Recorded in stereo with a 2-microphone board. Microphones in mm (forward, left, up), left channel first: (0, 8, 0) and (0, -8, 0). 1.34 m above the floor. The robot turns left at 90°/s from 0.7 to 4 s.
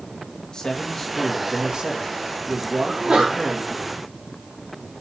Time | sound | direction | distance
0.5 | a man speaking | 45° left | 2 m
2.9 | a sneeze | 35° right | 3 m